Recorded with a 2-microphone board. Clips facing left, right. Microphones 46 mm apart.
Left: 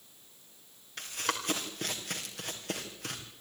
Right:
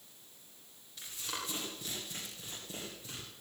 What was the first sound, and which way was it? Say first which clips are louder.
Running footsteps: left 8 dB; 65° left (ahead or behind).